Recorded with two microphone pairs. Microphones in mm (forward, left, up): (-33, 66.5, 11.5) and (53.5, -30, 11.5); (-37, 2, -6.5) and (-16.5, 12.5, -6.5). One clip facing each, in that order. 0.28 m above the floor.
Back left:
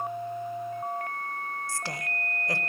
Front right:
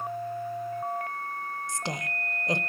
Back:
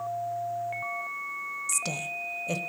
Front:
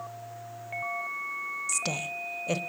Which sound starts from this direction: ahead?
A woman speaking, at 1.7 s.